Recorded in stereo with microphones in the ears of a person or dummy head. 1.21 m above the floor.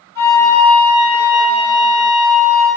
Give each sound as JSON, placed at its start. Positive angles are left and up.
{"t": 0.1, "sound": "a flute", "side_deg": 15, "distance_m": 1.5}